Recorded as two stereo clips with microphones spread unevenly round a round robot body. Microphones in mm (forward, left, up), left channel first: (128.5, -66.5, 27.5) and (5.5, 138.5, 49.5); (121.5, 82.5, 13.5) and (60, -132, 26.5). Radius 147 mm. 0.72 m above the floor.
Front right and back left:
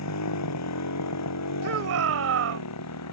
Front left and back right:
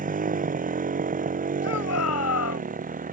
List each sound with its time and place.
0.0 s a motorcycle: 55° right
1.6 s a shout: 100° left